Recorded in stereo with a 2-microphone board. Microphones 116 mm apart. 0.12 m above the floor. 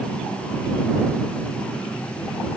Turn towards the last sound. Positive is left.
No sound to turn to.